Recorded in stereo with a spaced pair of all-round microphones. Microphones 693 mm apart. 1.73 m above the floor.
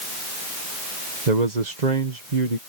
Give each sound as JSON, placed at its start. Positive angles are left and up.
{"t": 1.3, "sound": "a man speaking", "side_deg": -85}